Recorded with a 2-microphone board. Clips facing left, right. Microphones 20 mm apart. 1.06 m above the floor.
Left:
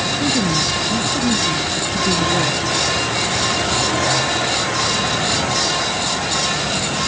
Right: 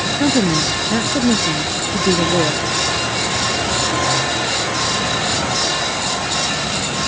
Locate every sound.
0.2 s a woman speaking: 75° right (ahead or behind)